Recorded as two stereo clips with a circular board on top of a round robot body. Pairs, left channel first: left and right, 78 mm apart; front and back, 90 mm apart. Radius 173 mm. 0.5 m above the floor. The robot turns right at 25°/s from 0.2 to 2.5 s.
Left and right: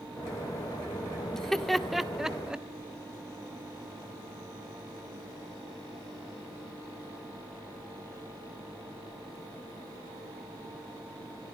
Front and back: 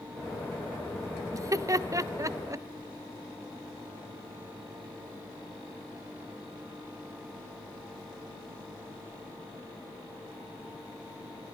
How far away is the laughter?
About 0.9 m.